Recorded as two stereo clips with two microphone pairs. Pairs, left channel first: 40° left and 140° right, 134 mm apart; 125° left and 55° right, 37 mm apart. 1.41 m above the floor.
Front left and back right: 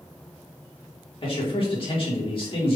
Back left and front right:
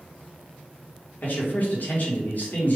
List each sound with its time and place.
1.2 s a man speaking: 90° left, 1.9 m